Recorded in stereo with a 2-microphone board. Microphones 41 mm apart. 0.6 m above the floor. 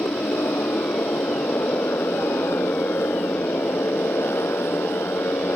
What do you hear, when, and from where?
0.0 s a motorcycle: 80° left